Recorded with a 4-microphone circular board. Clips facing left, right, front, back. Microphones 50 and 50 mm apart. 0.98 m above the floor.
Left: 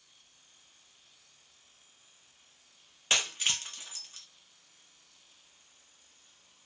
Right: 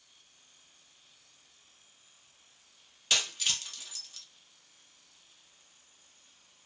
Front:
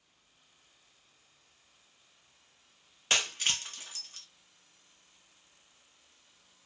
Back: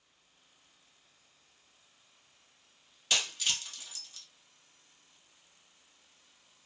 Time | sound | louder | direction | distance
3.1 | breaking glass | left 1 dB, front 2 dB | 40° left | 0.6 m